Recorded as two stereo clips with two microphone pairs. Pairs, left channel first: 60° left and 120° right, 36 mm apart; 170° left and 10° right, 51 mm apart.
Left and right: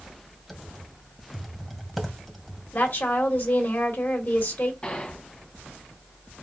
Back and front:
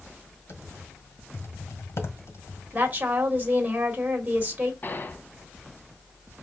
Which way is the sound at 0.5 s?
150° left.